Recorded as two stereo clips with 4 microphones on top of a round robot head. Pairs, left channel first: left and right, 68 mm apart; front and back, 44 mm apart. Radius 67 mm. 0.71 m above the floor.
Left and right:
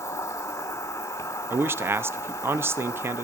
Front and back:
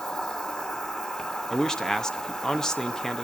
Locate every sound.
0.0 s an insect: 60° left, 2.5 m
1.5 s a man speaking: 70° right, 0.8 m